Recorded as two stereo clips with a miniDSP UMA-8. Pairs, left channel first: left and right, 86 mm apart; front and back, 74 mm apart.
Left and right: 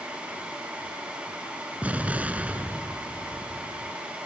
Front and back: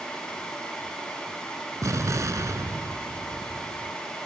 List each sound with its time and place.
1.8 s an explosion: 155° right, 0.9 m